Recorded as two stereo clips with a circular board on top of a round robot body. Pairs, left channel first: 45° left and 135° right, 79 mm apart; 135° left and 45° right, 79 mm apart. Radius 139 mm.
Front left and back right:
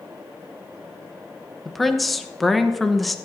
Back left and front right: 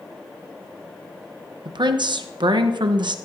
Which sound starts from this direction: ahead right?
A woman speaking, at 1.6 s.